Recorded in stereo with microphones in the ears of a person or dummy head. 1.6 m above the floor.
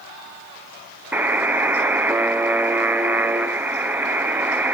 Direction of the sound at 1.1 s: 15° right (ahead or behind).